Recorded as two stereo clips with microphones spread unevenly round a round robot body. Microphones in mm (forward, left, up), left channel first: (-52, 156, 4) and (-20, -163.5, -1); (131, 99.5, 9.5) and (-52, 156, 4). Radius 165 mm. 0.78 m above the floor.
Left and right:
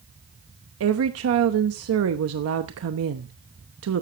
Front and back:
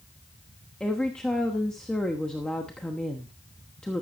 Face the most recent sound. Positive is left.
turn(degrees=-105)